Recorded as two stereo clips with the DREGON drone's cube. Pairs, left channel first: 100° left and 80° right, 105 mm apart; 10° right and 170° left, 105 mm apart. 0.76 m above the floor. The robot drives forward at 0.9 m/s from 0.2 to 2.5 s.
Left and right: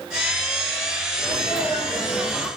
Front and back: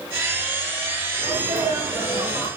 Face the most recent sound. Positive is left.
turn(degrees=-155)